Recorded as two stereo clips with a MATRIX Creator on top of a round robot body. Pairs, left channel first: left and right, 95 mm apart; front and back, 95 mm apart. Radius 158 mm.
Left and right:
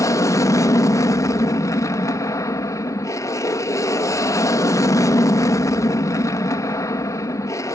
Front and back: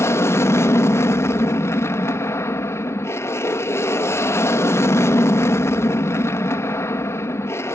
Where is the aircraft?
50° left.